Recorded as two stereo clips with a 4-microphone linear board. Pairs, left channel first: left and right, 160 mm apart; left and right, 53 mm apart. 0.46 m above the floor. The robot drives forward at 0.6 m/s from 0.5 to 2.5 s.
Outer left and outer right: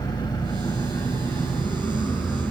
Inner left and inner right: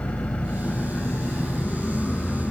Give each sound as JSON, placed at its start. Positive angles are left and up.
{"t": 0.0, "sound": "an engine running", "side_deg": 25, "distance_m": 1.0}